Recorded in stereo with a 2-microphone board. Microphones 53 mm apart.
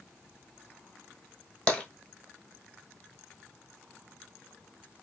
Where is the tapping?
20° left (ahead or behind), 1.1 m.